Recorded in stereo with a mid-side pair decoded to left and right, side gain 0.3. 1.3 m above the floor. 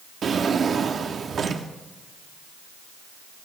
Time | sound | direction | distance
0.2 | a drawer | 65° right | 1.5 m